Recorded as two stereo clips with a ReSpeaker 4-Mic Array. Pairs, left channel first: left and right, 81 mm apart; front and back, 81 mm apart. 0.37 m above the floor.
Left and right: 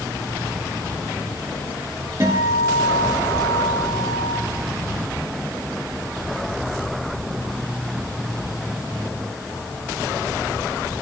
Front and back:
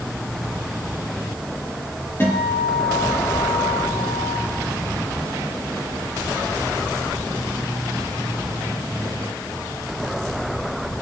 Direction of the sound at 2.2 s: 55° right.